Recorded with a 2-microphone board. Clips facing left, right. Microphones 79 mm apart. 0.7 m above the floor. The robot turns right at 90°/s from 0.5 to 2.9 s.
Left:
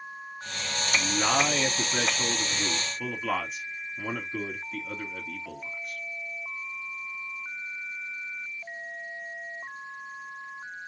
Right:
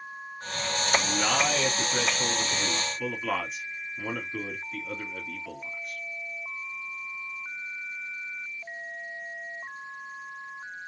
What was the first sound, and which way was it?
A man speaking, straight ahead.